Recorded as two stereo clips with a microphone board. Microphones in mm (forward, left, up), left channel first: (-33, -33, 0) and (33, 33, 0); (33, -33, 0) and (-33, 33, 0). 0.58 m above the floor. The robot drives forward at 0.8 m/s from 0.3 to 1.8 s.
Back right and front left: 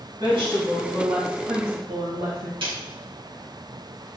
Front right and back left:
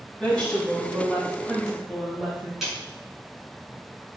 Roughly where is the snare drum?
Ahead left.